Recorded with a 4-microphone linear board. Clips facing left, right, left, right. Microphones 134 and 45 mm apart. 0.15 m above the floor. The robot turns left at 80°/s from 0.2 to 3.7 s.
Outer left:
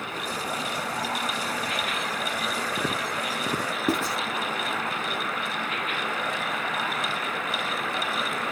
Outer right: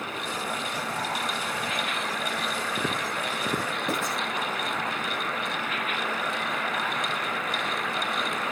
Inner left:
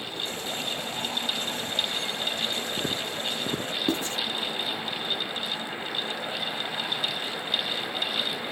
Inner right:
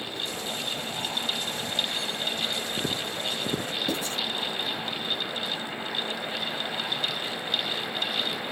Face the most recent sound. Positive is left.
turn(degrees=35)  # may be behind; listen again after turning